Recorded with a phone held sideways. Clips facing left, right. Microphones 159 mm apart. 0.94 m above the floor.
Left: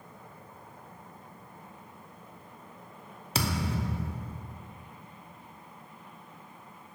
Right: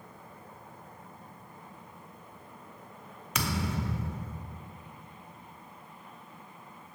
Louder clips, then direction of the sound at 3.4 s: Left 1 dB; 30° left (ahead or behind).